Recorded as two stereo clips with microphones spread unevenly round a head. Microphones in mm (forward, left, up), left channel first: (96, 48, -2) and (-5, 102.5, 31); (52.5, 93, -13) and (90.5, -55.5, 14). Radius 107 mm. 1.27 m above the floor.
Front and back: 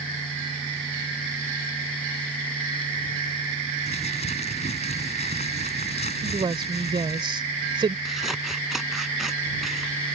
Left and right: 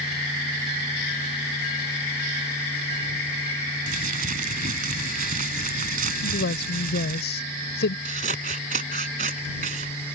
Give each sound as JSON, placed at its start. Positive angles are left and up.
{"t": 3.9, "sound": "crumpling", "azimuth_deg": -90}
{"t": 6.2, "sound": "a woman speaking", "azimuth_deg": 110}
{"t": 8.1, "sound": "scissors", "azimuth_deg": -125}